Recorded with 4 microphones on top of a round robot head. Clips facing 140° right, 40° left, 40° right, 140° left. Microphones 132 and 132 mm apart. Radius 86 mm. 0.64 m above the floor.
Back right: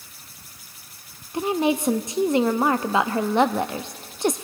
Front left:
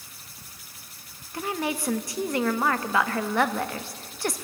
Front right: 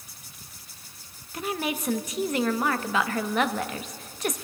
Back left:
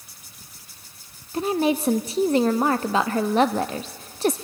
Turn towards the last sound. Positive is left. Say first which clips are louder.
# back right 7 dB, back left 8 dB
turn(degrees=170)